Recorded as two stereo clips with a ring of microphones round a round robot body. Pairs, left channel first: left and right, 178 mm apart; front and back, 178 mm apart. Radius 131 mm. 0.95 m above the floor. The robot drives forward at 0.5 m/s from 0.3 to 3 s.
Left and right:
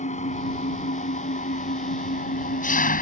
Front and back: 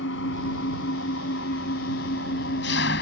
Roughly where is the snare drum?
I don't hear a snare drum.